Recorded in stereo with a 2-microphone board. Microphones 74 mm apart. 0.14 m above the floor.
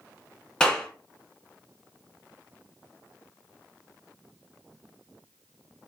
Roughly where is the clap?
Centre.